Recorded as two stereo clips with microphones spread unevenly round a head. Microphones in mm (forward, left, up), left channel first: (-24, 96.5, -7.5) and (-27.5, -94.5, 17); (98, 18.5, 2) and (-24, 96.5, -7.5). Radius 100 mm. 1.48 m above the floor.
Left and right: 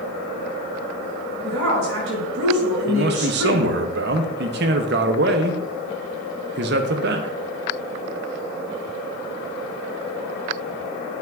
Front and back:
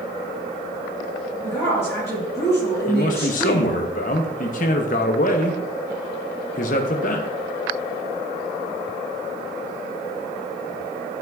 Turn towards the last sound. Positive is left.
turn(degrees=-65)